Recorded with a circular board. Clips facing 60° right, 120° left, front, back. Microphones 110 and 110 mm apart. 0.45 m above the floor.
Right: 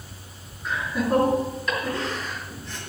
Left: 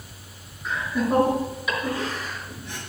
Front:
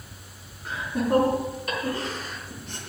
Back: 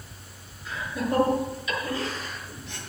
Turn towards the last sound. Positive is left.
turn(degrees=45)